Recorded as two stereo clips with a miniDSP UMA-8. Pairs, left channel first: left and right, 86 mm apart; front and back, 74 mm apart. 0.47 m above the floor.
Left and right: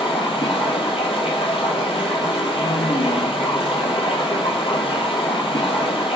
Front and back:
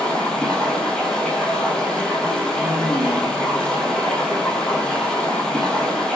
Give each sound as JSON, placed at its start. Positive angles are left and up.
{"t": 0.0, "sound": "running water", "azimuth_deg": 80, "distance_m": 2.5}